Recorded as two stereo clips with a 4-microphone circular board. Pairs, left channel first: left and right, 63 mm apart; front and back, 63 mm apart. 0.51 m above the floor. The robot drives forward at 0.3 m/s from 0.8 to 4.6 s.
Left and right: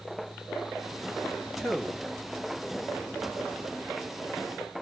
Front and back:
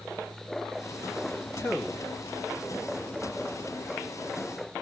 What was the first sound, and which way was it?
A man speaking, 15° left.